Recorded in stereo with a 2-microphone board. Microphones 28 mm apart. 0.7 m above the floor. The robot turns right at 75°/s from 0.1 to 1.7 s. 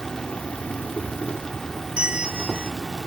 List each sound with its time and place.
0.0 s an insect: 30° left; by 3.1 s 150° left
2.0 s a bell: 40° right (ahead or behind)